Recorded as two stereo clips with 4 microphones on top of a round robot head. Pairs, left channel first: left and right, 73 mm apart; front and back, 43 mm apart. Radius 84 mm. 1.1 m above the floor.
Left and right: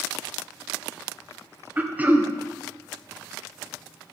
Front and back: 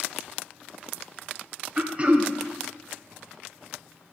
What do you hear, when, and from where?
1.8 s throat clearing: 145° right, 0.8 m